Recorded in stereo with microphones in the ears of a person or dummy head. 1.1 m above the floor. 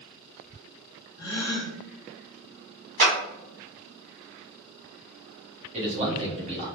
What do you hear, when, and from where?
1.2 s a gasp: 20° left (ahead or behind), 0.6 m
3.0 s a clap: 45° right (ahead or behind), 1.2 m
5.7 s a man speaking: 30° right (ahead or behind), 0.9 m